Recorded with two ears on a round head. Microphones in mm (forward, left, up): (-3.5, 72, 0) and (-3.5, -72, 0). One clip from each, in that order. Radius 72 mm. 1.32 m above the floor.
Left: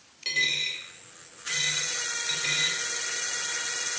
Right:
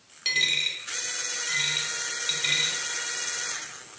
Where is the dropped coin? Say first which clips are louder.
Right 2 dB; 25° right (ahead or behind), 1.4 m.